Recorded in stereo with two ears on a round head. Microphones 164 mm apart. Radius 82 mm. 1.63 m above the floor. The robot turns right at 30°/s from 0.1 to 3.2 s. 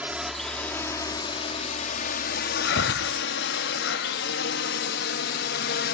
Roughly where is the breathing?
Left.